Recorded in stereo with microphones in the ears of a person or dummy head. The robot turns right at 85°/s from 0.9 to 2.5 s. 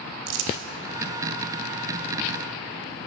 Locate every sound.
0.3 s crumpling: 65° right (ahead or behind), 0.6 m